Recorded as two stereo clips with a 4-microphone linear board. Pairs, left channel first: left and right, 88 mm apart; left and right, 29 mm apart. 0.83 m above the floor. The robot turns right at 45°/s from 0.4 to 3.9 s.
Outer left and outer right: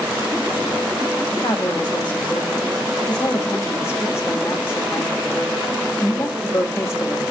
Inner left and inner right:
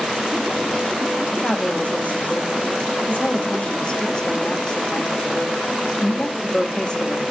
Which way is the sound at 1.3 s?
35° left.